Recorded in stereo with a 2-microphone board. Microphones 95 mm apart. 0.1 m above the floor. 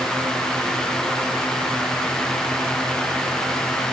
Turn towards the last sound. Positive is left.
No sound to turn to.